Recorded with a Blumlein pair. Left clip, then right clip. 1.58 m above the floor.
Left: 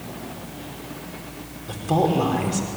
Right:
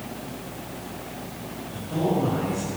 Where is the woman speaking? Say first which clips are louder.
Left 5 dB; 45° left, 5 m.